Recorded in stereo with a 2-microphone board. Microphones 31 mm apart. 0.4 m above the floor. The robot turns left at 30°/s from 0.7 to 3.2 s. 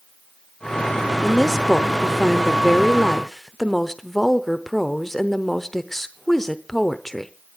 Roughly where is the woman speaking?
Centre.